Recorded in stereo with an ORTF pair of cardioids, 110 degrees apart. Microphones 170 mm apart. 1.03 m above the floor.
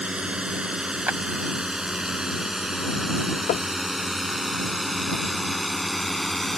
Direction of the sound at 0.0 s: 5° right.